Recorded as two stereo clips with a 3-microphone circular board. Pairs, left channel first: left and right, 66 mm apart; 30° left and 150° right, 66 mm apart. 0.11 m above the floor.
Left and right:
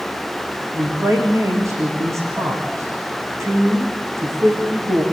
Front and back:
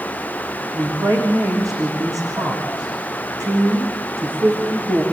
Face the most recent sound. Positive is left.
turn(degrees=-130)